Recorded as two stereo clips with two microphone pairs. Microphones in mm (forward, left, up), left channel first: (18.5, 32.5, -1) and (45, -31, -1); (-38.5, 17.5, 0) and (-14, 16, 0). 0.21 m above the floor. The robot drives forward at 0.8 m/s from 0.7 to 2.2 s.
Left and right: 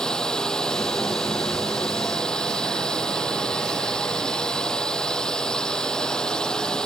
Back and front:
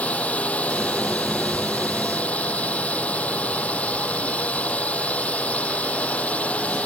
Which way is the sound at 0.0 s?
170° right.